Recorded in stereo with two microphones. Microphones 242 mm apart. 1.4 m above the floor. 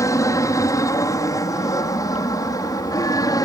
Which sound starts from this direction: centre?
An aircraft, at 0.0 s.